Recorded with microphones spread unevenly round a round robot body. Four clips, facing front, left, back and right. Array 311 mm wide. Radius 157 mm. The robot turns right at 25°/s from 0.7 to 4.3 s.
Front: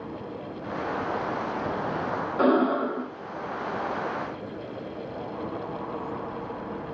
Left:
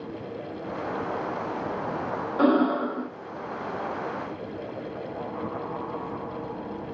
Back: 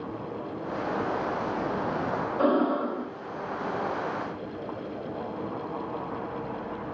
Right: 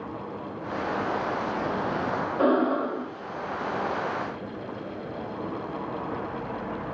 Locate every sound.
2.4 s breathing: 45° left, 0.9 m; by 3.1 s 60° left, 0.9 m